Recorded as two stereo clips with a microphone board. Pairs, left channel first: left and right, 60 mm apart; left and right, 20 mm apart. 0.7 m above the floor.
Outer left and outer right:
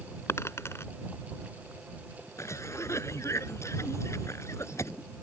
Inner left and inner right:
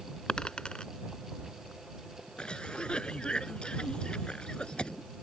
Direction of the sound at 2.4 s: 55° left (ahead or behind).